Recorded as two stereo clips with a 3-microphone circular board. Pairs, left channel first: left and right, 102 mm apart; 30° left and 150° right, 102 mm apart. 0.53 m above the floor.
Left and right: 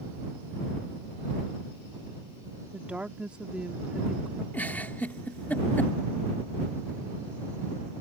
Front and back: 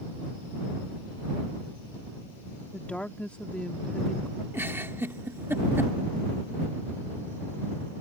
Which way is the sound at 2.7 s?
30° right.